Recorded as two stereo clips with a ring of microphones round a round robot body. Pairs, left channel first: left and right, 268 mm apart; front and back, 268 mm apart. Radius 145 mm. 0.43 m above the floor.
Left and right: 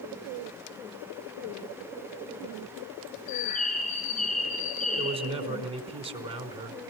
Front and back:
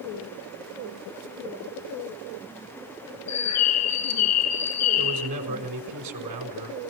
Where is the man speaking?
160° right, 4.5 m.